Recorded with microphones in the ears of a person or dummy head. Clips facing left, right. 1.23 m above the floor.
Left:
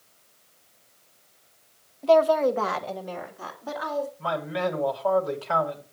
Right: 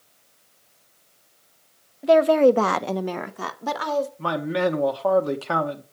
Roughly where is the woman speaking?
Centre.